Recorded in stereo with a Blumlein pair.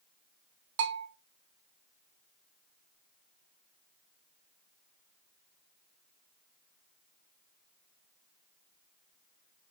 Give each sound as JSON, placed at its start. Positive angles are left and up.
{"t": 0.8, "sound": "a bell", "azimuth_deg": -50, "distance_m": 0.6}